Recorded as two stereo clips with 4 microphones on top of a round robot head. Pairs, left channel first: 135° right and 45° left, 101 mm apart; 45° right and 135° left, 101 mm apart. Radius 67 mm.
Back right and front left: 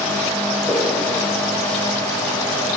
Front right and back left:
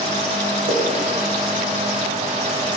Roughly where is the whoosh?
Behind left.